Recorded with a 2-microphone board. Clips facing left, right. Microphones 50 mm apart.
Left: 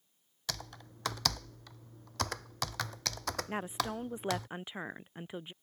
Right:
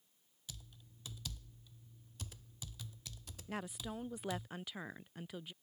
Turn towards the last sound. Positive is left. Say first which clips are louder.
# left 4 dB
turn(degrees=25)  # may be behind; listen again after turning